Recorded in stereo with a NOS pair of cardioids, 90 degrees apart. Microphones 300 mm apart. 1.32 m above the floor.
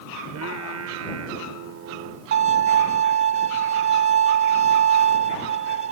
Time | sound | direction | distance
0.2 | singing | 60° right | ?
2.3 | a violin | 50° right | ?